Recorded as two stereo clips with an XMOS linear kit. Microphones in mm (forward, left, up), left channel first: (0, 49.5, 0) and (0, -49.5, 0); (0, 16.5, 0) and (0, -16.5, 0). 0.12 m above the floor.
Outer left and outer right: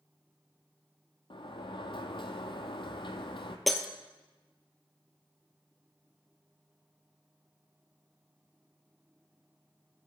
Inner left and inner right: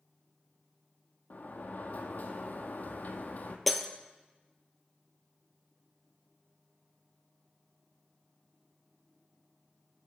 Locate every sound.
1.3 s a sliding door: 60° left (ahead or behind), 0.8 m
3.7 s breaking glass: centre (ahead or behind), 0.7 m